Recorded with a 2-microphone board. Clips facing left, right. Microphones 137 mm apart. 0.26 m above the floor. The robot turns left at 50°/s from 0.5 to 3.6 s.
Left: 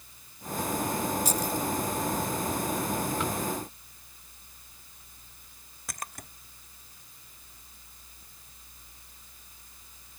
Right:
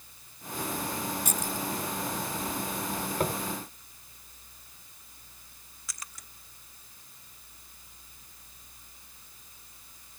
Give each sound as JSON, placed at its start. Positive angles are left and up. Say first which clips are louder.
{"t": 1.2, "sound": "keys jangling", "louder": "left 4 dB", "side_deg": -60}
{"t": 3.2, "sound": "tapping", "louder": "right 1 dB", "side_deg": -45}
{"t": 5.9, "sound": "a splash", "louder": "left 8 dB", "side_deg": 55}